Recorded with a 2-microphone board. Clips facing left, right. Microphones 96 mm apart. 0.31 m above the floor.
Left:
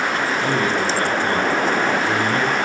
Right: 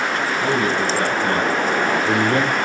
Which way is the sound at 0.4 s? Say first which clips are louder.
Right 2 dB; 5° right (ahead or behind).